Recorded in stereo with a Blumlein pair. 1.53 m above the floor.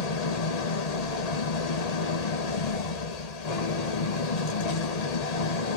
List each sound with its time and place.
0.0 s an engine running: 45° left, 1.4 m